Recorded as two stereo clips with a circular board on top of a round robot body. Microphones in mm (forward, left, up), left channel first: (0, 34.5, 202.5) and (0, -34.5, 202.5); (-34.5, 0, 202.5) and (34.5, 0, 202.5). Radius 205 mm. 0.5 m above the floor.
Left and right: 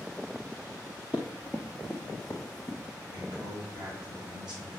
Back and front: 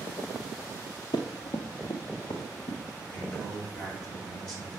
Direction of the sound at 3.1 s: 105° right.